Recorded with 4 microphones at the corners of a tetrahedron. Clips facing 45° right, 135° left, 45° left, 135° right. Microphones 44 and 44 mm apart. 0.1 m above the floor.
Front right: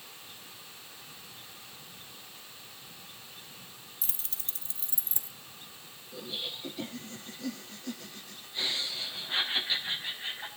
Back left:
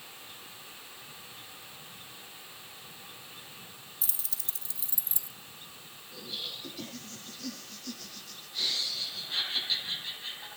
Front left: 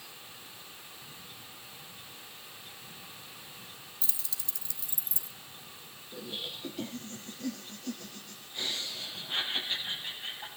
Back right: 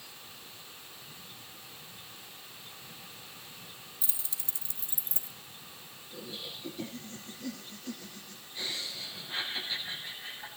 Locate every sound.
4.0 s keys jangling: 70° right, 1.6 m; by 5.3 s 85° right, 2 m
6.1 s laughter: 20° left, 4 m